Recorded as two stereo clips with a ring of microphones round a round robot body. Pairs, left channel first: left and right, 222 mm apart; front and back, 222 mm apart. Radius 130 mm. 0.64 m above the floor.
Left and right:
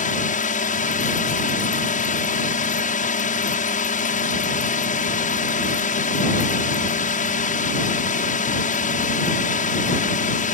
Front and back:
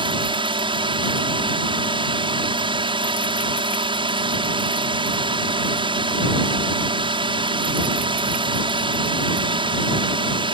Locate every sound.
0.0 s a drone: 125° left